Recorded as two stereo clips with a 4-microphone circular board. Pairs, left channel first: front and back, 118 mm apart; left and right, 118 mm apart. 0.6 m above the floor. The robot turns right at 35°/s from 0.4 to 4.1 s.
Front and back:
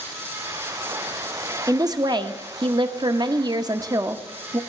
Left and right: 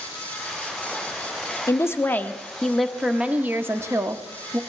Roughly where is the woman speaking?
Behind left.